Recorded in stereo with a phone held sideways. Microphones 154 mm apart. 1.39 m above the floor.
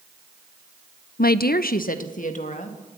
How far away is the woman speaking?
About 0.5 m.